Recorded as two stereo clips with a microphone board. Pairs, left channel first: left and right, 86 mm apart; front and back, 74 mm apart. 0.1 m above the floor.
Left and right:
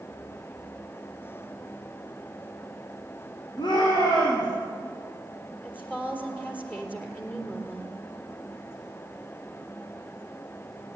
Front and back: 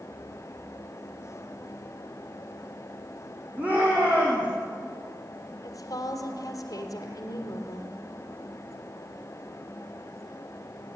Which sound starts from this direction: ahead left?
A woman speaking, at 5.6 s.